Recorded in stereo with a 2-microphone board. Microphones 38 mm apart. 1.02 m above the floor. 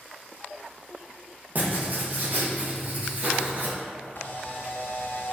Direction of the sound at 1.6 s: 45° right (ahead or behind).